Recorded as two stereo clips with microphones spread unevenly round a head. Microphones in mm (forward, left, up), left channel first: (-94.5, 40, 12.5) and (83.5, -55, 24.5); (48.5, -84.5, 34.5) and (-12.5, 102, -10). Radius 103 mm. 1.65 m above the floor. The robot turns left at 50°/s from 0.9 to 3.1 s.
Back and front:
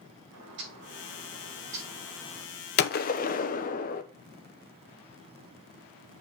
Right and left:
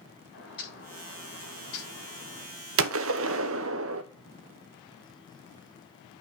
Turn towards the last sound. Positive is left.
turn(degrees=110)